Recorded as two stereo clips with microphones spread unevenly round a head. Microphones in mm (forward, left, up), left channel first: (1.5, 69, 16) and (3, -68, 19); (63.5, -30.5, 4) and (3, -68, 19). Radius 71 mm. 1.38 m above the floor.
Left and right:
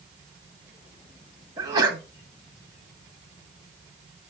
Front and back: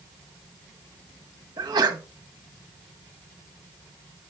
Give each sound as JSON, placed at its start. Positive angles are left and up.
{"t": 1.6, "sound": "a sneeze", "azimuth_deg": -150, "distance_m": 1.3}